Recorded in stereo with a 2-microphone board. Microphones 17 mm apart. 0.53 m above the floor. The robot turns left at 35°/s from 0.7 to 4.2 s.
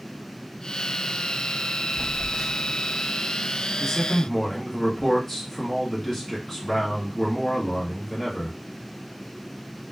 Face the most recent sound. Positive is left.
turn(degrees=25)  # may be behind; listen again after turning